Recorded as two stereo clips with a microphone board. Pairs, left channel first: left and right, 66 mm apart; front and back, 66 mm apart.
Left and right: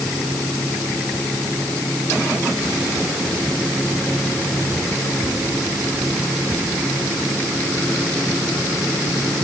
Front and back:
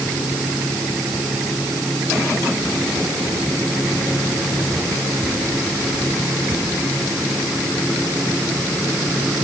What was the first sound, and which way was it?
Only background noise.